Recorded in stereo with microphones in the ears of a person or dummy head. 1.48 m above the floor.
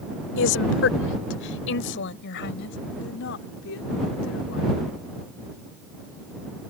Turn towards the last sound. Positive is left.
turn(degrees=70)  # may be behind; listen again after turning